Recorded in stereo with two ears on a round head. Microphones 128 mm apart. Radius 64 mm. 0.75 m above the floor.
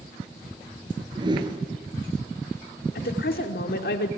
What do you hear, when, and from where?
1.1 s a whoosh: 35° right (ahead or behind), 1.9 m
3.0 s a woman speaking: 70° left (ahead or behind), 1.9 m